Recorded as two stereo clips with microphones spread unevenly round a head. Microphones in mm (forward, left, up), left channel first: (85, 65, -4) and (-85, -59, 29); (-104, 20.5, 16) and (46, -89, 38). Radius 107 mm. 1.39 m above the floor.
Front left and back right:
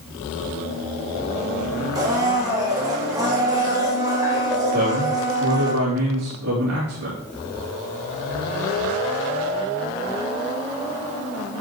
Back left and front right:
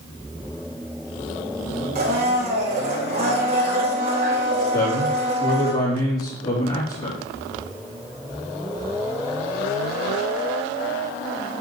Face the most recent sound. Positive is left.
turn(degrees=-165)